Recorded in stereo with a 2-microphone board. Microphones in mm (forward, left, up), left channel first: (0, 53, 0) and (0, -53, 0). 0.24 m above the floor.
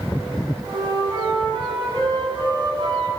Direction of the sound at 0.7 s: 50° right (ahead or behind).